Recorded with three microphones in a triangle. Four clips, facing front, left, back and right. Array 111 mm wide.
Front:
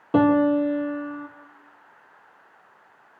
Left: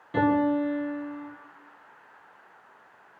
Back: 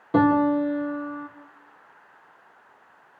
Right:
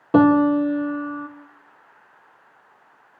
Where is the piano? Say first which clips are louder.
Right 8 dB, front 1 dB; 75° right, 3.5 m.